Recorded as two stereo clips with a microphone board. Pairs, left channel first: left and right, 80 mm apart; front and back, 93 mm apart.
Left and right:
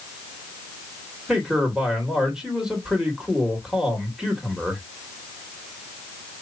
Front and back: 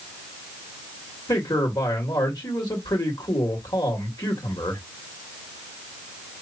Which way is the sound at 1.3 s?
10° right.